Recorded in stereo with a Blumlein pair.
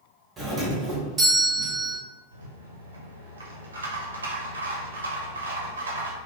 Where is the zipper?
No zipper in this recording.